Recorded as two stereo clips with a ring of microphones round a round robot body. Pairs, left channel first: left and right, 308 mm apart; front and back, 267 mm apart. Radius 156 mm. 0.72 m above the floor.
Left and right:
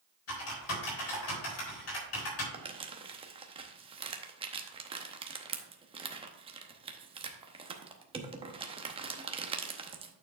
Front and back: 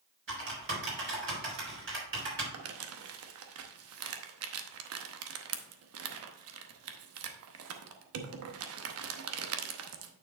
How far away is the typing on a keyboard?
About 4 m.